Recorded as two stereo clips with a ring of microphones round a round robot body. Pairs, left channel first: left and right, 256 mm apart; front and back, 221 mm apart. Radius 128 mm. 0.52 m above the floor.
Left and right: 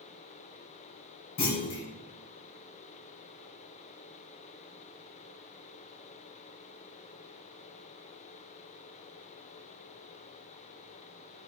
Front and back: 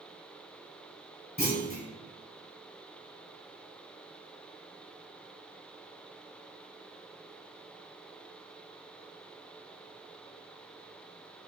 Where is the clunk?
60° left, 1.8 m.